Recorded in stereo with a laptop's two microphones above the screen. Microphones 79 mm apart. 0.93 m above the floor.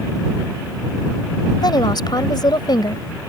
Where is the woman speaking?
60° left (ahead or behind).